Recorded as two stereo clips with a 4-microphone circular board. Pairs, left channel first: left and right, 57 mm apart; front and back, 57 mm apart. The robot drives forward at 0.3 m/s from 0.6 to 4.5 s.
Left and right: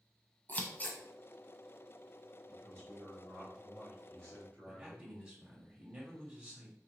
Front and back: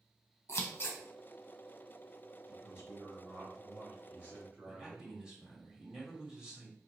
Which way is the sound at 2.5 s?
130° left.